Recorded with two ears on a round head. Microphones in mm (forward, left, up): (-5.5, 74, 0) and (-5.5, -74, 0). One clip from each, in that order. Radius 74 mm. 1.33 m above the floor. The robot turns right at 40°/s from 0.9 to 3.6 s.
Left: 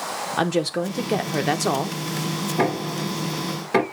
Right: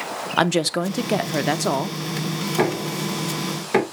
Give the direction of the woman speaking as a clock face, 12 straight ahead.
1 o'clock.